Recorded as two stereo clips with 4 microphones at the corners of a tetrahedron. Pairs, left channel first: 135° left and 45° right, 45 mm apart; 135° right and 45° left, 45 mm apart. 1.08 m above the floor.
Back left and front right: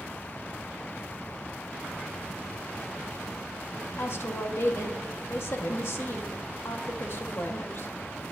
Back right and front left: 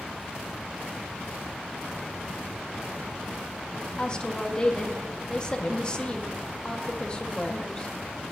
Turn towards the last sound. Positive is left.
turn(degrees=160)